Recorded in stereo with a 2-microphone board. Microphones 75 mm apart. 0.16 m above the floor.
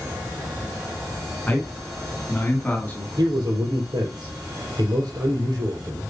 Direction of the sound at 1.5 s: 15° left (ahead or behind).